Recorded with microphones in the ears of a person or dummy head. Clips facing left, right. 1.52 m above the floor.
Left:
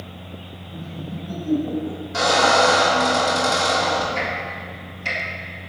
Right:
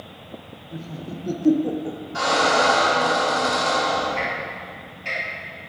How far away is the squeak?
About 2.5 m.